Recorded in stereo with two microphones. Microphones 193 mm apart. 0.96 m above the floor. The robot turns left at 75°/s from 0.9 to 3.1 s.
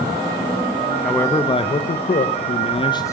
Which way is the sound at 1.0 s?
175° left.